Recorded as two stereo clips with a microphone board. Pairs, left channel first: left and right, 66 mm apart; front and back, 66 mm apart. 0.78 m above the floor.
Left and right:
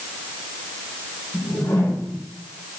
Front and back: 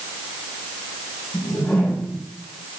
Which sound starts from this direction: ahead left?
A whoosh, at 1.3 s.